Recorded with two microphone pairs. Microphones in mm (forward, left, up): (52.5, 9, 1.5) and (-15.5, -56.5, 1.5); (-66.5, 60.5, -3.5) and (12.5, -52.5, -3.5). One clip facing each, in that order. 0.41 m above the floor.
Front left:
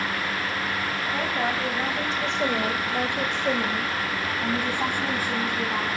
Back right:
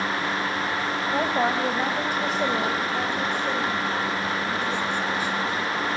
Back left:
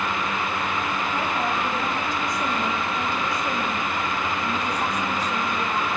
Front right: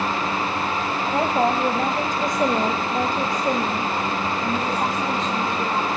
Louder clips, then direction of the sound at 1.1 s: Back right 5 dB, front right 9 dB; 85° right.